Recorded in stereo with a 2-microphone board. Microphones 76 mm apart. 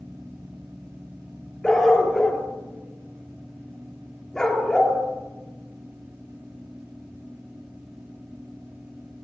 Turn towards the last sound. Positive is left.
turn(degrees=10)  # may be behind; listen again after turning